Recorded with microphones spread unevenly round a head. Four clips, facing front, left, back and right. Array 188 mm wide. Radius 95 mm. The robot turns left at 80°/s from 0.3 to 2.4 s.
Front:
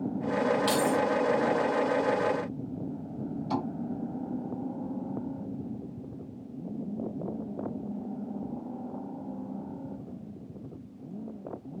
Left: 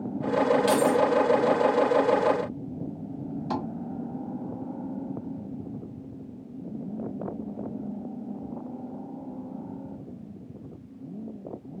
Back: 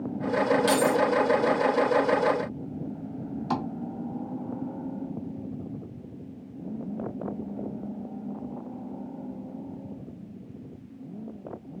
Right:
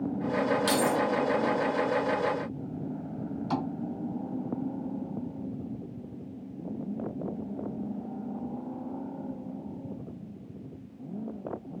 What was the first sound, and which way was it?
Keys jangling, 65° right.